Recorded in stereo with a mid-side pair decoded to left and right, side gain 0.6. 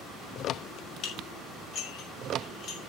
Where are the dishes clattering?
55° left, 5.5 m.